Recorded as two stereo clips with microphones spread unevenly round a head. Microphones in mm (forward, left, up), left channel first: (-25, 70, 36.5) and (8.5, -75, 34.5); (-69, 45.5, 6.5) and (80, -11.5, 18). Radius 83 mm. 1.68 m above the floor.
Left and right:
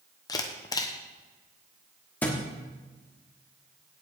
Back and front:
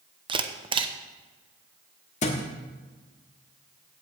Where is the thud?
175° left, 1.4 m.